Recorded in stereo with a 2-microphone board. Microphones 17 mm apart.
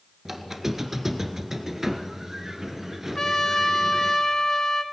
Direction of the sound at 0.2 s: 15° right (ahead or behind).